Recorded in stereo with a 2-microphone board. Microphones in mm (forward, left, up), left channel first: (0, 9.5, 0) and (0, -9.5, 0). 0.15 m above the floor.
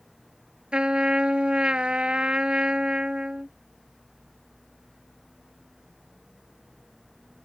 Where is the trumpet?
60° right (ahead or behind).